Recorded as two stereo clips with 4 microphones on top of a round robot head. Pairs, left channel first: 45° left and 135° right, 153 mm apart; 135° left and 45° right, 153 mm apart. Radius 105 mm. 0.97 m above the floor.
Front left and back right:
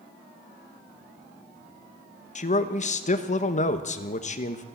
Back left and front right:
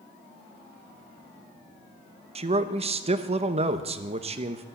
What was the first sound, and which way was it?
A man speaking, 5° left.